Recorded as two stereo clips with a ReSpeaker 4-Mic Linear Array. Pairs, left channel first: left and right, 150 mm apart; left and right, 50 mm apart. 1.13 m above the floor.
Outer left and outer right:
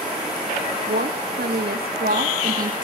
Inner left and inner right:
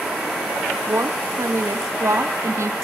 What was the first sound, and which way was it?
A woman speaking, 85° right.